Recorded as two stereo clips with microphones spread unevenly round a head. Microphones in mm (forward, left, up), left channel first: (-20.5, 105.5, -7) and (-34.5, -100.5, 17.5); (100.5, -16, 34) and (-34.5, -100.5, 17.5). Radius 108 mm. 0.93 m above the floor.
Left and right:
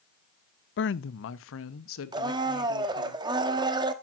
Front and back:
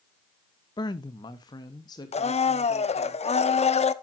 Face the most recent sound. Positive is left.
turn(degrees=-20)